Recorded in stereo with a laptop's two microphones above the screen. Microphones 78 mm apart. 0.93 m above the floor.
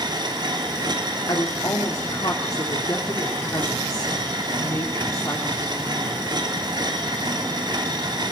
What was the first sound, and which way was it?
A machine running, 65° right (ahead or behind).